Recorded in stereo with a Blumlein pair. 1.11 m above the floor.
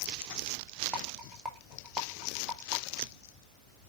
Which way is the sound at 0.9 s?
5° right.